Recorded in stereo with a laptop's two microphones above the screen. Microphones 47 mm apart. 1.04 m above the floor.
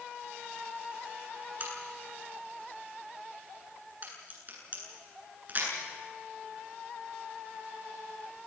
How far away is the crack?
About 9.5 m.